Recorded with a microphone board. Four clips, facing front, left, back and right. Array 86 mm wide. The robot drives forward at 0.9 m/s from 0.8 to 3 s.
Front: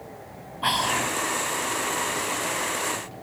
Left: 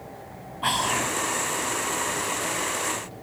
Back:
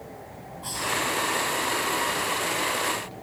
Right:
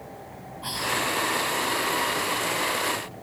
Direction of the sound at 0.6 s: 40° left.